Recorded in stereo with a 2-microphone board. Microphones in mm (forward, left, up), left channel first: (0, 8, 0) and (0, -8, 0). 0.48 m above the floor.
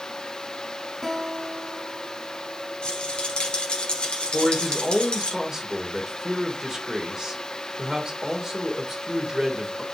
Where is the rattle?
85° left, 2.0 m.